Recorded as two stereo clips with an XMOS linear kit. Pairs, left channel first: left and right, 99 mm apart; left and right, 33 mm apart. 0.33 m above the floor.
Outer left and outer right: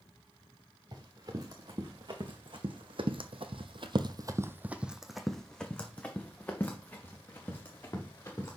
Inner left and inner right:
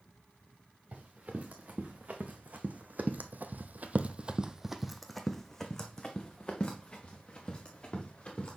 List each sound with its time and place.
0.9 s running footsteps: 50° right (ahead or behind), 2 m; by 8.6 s 25° left (ahead or behind), 3 m